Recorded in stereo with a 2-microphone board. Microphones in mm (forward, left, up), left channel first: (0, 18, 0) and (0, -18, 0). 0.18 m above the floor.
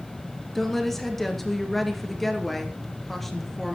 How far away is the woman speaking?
About 3 m.